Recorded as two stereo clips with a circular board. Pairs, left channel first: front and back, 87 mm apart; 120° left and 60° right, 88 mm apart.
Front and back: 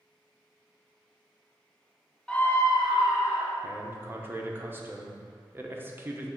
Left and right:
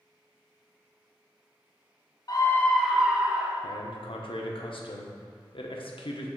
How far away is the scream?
About 0.8 m.